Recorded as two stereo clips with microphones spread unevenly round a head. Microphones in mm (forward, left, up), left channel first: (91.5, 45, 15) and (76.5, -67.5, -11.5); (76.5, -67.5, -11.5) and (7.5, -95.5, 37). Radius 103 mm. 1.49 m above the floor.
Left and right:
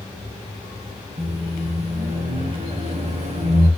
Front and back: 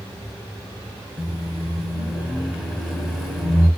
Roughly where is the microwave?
Right.